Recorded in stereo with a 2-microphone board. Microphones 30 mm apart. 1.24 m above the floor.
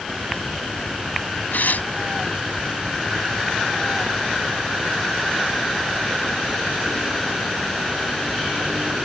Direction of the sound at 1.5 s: 80° left.